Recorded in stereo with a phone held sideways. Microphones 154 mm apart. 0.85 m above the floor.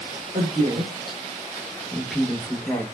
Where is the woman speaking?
45° right (ahead or behind), 0.7 m; by 2.8 s 15° left (ahead or behind), 1.0 m.